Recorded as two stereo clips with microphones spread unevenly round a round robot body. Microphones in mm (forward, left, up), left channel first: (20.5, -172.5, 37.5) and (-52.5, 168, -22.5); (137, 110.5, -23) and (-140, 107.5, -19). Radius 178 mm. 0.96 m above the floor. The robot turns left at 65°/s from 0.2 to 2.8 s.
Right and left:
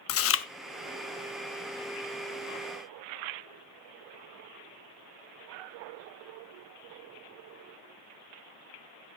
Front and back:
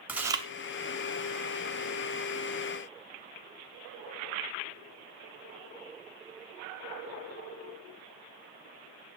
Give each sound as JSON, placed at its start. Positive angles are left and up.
{"t": 0.1, "sound": "chewing", "azimuth_deg": -95, "distance_m": 0.6}